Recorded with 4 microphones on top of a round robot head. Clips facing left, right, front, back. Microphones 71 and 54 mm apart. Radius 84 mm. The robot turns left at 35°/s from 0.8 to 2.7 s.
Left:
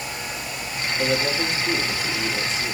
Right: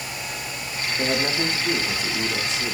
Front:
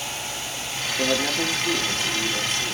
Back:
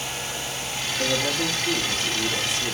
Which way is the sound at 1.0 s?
40° right.